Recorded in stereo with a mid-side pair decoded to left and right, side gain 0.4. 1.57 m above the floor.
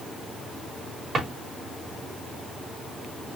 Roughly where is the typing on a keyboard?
I don't hear typing on a keyboard.